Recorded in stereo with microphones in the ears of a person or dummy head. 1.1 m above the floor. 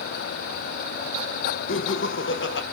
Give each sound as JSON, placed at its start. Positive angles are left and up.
{"t": 1.7, "sound": "laughter", "side_deg": 60, "distance_m": 1.1}